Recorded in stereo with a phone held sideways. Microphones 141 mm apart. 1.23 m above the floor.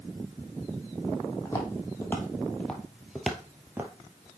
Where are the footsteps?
20° left (ahead or behind), 2 m; by 3.9 s 15° right (ahead or behind), 1.3 m.